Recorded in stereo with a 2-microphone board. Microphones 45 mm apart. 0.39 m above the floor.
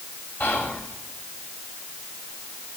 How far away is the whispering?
About 1.5 m.